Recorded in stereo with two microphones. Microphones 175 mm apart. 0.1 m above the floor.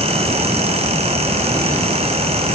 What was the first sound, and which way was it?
Only background noise.